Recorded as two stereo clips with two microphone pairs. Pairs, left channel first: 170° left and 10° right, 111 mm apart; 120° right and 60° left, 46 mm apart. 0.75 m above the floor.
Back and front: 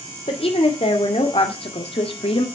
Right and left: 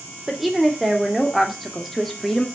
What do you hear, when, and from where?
0.3 s a woman speaking: 145° left, 2.5 m; by 2.5 s 160° left, 1.5 m